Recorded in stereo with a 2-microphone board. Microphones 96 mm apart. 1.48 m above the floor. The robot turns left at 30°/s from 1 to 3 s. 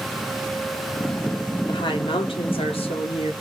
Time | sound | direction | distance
1.7 | a woman speaking | 125° left | 4.5 m